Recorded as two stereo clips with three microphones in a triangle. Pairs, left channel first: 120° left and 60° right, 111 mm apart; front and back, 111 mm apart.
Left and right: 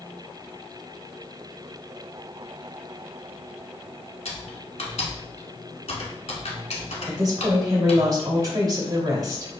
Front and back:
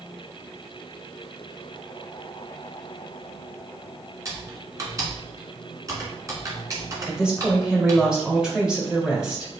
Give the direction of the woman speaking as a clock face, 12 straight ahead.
3 o'clock.